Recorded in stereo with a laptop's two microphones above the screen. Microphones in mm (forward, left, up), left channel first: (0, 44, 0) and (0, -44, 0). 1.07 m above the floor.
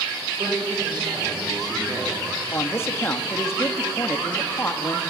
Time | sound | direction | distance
0.3 | a man speaking | 60° right (ahead or behind) | 5.5 m
2.5 | a man speaking | 30° left (ahead or behind) | 1.9 m